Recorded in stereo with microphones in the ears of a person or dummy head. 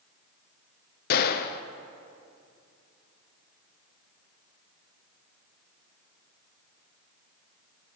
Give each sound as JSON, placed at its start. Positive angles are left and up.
{"t": 1.1, "sound": "a gunshot", "side_deg": 55, "distance_m": 0.6}